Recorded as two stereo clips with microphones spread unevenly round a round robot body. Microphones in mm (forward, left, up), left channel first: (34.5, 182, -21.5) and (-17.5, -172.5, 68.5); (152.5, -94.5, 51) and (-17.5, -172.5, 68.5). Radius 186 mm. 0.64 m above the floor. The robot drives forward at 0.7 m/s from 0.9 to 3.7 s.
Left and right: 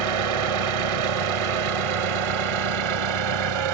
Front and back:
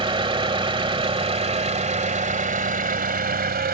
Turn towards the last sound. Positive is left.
turn(degrees=-120)